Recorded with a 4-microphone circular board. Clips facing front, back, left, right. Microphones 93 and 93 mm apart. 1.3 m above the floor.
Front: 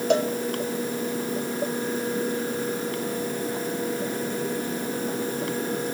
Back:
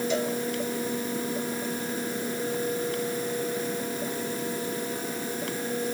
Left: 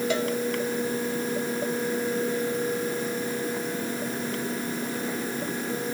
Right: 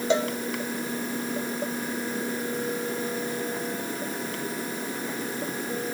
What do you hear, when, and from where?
0.1 s a cowbell: 25° right, 1.7 m